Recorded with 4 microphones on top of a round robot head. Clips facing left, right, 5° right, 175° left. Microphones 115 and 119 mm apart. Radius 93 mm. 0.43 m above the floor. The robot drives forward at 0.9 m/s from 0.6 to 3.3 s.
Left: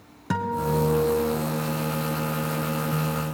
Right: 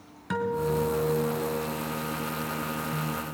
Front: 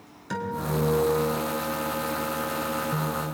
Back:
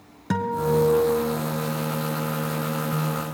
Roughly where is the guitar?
Behind left.